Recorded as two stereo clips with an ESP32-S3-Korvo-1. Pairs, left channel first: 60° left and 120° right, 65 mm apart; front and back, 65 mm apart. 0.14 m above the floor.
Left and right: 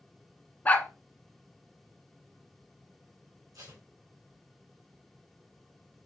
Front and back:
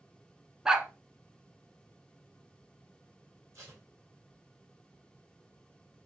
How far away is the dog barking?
About 0.6 m.